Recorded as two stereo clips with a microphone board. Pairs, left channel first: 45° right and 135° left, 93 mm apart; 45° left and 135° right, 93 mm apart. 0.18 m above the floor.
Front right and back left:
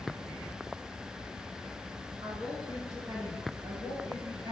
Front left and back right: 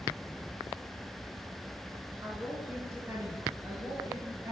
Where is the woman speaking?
175° left, 2.5 m; by 4.5 s 165° left, 3.5 m.